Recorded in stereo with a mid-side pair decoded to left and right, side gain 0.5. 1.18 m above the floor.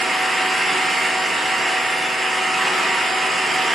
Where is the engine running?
20° right, 9 m.